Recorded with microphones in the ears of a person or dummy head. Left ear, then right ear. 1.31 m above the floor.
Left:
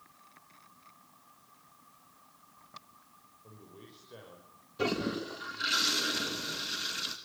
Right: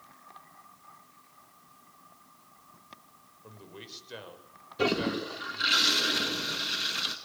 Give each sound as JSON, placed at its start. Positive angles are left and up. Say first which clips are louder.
{"t": 3.4, "sound": "a man speaking", "louder": "right 7 dB", "side_deg": -70, "distance_m": 7.0}
{"t": 4.8, "sound": "a toilet flushing", "louder": "right 4 dB", "side_deg": -10, "distance_m": 2.5}